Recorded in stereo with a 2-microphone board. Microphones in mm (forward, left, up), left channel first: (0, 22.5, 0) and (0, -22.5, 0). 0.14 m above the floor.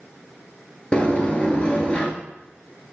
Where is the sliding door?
20° left (ahead or behind), 1.3 m.